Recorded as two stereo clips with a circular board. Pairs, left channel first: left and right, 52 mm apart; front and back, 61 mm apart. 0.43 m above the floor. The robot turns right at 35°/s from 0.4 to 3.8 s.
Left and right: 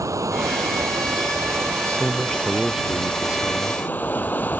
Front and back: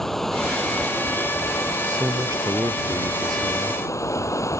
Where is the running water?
85° right; by 4.6 s 35° left.